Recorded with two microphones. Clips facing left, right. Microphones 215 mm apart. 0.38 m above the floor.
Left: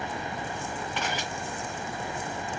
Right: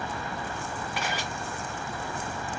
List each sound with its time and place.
1.0 s a camera shutter: 10° right (ahead or behind), 1.8 m